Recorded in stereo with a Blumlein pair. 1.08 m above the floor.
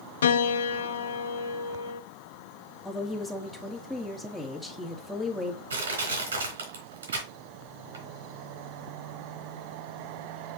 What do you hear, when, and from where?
0.2 s a piano: 60° left, 0.5 m
2.9 s a woman speaking: 5° left, 1.9 m
5.7 s crushing: 70° right, 3.5 m